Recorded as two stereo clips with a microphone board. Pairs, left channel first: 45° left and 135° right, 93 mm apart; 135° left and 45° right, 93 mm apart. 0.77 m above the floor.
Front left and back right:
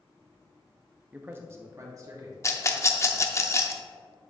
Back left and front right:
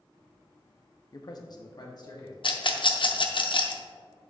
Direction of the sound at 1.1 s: 155° left.